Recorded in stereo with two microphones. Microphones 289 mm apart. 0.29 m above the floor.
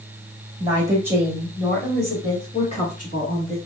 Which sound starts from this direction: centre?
A woman speaking, at 0.6 s.